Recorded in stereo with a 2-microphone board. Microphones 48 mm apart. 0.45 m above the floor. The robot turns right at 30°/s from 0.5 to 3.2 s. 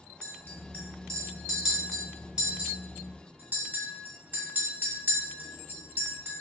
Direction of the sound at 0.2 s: 35° left (ahead or behind).